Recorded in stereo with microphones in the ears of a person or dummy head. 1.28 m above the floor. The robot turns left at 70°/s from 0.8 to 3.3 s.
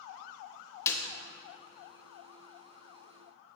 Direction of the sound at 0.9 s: 20° left (ahead or behind).